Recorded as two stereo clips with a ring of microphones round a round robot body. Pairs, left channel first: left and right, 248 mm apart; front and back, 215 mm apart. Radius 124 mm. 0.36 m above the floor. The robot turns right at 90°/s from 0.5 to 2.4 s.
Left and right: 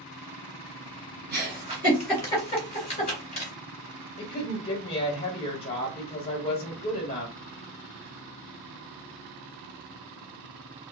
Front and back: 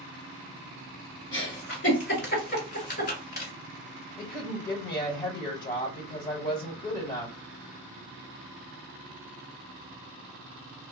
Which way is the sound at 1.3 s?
70° right.